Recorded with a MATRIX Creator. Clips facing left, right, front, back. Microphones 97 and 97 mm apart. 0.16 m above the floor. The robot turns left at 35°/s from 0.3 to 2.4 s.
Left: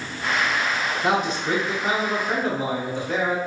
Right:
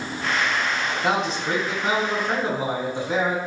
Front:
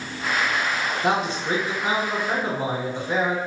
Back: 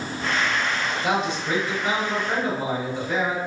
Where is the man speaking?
10° left, 1.5 m; by 3.4 s 35° right, 1.5 m.